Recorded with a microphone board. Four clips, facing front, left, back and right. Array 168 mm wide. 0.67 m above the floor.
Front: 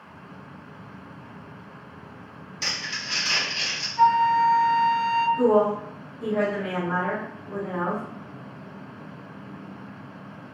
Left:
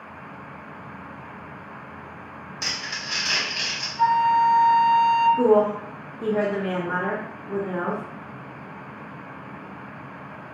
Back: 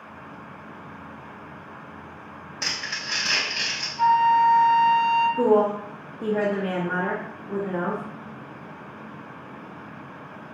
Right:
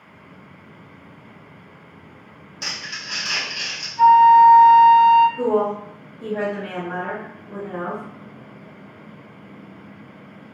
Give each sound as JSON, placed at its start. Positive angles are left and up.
{"t": 2.6, "sound": "crumpling", "azimuth_deg": 160, "distance_m": 1.0}
{"t": 4.0, "sound": "a flute", "azimuth_deg": -25, "distance_m": 0.7}
{"t": 5.4, "sound": "a woman speaking", "azimuth_deg": 145, "distance_m": 0.6}